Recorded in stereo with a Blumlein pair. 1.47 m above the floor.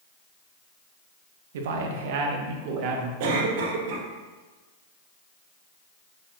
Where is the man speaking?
55° right, 1.8 m; by 3.1 s 40° right, 2.5 m.